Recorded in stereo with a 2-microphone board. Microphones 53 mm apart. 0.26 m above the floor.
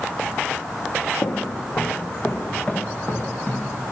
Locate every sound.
1.2 s footsteps: 65° left (ahead or behind), 1.3 m; by 3.7 s 25° left (ahead or behind), 2.5 m